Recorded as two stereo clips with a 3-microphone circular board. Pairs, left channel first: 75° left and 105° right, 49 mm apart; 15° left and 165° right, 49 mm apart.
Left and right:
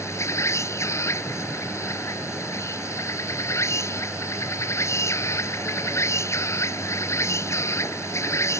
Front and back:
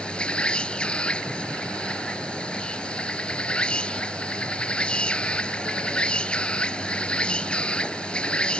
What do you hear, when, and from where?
0.0 s an insect: 85° left